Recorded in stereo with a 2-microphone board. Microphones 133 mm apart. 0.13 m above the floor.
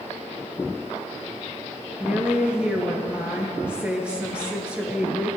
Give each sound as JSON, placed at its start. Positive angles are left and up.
{"t": 2.0, "sound": "a woman speaking", "side_deg": -10, "distance_m": 2.0}